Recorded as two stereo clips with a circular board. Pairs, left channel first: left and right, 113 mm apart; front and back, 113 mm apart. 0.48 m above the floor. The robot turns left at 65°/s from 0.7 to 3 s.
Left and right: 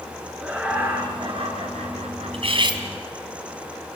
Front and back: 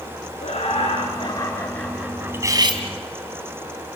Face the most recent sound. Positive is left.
turn(degrees=-155)